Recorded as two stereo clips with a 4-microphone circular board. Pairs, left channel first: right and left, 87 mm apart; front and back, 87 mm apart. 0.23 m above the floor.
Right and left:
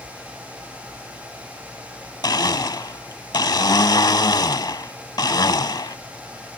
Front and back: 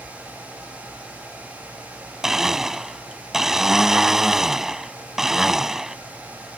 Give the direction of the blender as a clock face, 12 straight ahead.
3 o'clock.